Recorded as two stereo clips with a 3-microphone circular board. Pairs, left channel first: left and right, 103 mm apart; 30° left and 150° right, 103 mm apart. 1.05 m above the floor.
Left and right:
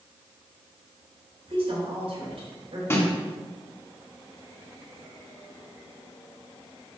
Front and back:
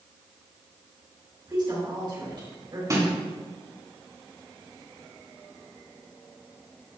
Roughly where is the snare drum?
Behind left.